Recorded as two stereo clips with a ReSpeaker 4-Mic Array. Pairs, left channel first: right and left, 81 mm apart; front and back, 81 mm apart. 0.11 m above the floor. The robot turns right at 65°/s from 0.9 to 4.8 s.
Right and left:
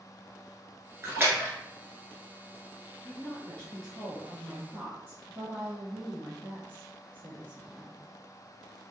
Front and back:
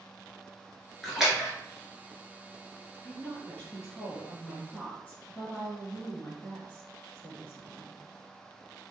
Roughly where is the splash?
Left.